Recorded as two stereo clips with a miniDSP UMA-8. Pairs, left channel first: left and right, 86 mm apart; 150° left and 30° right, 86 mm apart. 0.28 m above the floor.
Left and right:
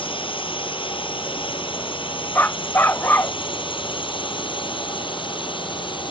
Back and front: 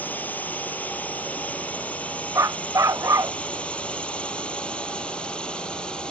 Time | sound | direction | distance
0.0 | a drone | 80° left | ?
2.4 | a dog barking | 25° left | ?